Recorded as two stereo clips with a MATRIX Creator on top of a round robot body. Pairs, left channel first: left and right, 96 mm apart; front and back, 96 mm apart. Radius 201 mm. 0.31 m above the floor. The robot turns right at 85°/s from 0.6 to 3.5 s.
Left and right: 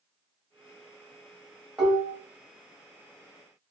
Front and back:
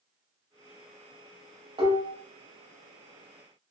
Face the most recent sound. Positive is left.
turn(degrees=-25)